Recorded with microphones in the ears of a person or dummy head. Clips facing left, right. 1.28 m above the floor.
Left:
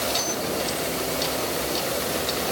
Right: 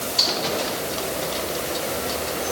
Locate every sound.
Only background noise.